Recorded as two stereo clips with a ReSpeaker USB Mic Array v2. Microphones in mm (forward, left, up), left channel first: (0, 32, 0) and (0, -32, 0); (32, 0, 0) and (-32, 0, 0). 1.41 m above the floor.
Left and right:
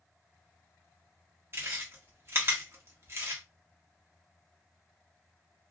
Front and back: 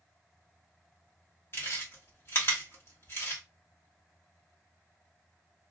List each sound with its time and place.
1.5 s chewing: 45° right, 1.4 m